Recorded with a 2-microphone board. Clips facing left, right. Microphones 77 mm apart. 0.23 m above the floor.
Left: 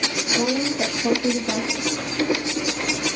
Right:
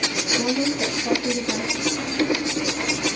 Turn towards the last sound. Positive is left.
turn(degrees=75)  # may be behind; listen again after turning